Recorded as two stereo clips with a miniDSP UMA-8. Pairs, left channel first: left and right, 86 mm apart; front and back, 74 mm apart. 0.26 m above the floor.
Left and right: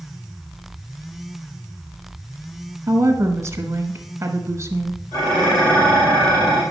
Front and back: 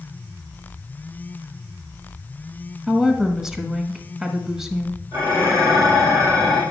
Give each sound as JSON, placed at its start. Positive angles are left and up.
{"t": 2.9, "sound": "a woman speaking", "azimuth_deg": -100, "distance_m": 1.0}
{"t": 5.1, "sound": "dishes clattering", "azimuth_deg": 125, "distance_m": 4.5}